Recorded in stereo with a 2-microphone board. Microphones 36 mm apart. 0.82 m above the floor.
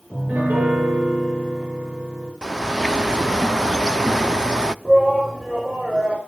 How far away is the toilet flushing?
No toilet flushing in this recording.